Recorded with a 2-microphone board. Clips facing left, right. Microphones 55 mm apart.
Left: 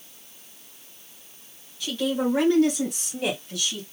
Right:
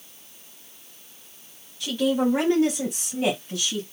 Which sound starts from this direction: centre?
A woman speaking, at 1.8 s.